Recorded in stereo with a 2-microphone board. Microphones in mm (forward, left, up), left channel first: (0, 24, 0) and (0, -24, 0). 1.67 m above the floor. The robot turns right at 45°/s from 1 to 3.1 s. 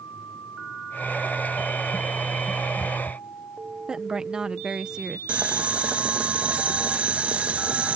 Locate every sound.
3.9 s a woman speaking: 15° right (ahead or behind)
5.3 s boiling: 25° right (ahead or behind)